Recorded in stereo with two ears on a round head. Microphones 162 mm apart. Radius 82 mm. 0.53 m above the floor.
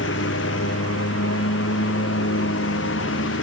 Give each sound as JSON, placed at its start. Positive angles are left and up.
{"t": 0.0, "sound": "a lawn mower", "side_deg": 70}